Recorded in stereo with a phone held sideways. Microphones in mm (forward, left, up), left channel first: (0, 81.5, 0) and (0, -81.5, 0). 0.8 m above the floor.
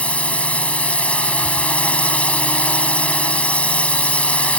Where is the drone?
5° left (ahead or behind).